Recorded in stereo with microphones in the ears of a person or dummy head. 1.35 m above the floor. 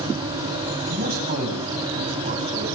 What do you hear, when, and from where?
0.9 s a man speaking: 40° right (ahead or behind), 7.5 m; by 2.6 s 30° right (ahead or behind), 10 m